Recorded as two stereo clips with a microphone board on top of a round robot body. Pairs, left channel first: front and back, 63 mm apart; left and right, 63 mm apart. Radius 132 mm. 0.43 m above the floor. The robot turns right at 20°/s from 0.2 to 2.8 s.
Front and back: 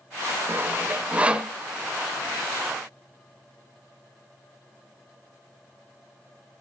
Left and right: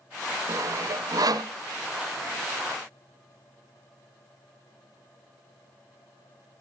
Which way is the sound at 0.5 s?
125° right.